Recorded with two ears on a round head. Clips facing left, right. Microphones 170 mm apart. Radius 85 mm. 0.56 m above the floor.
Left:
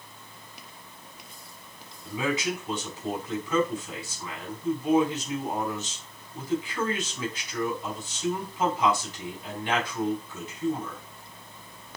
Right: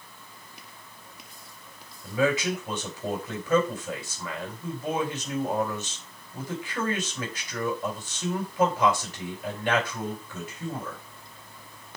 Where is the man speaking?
45° right (ahead or behind), 5 m.